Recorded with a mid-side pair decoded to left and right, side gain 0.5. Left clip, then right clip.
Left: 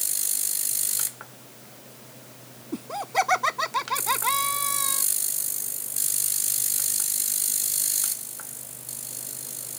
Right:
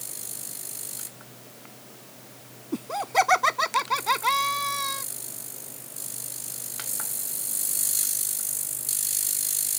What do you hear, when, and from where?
2.7 s laughter: 15° right